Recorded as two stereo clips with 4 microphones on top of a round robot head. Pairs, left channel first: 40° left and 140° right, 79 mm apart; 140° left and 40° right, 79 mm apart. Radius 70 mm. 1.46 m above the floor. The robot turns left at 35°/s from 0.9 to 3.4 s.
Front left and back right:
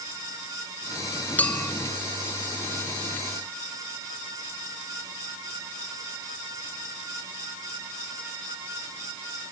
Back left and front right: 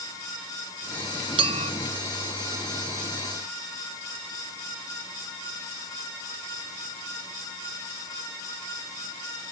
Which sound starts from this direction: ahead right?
A clink, at 1.4 s.